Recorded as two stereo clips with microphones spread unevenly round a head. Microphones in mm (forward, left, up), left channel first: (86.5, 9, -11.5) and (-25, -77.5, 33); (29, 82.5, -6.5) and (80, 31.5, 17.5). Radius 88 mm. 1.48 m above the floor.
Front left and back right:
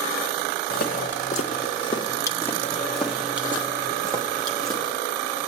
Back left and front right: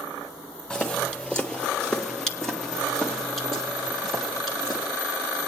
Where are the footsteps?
40° left, 1.8 m; by 4.9 s 115° right, 2.5 m.